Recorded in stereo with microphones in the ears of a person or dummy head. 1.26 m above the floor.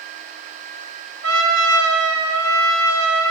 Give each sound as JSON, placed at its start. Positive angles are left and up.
{"t": 1.2, "sound": "a trumpet", "side_deg": -65, "distance_m": 1.4}